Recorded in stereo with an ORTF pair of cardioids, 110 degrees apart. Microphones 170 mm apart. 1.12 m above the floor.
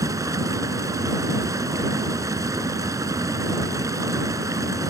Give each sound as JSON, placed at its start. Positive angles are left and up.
{"t": 0.0, "sound": "running water", "azimuth_deg": -20}